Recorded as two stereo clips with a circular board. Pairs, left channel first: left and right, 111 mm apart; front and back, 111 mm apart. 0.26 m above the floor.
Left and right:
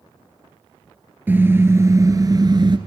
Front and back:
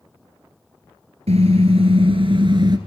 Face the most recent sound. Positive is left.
turn(degrees=-135)